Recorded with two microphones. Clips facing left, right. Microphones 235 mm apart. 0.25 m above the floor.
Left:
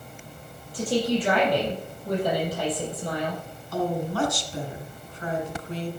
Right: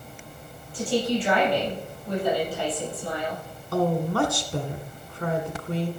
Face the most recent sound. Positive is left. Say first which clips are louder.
# right 3 dB
turn(degrees=-65)  # may be behind; listen again after turning